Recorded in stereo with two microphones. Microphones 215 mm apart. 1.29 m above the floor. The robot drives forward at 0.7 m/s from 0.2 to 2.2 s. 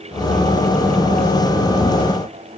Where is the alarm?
No alarm in this recording.